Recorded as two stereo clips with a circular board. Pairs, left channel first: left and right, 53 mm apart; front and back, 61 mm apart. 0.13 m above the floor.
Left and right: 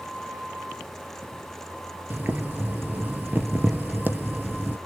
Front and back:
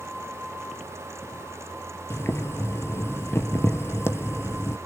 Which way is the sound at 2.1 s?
40° right.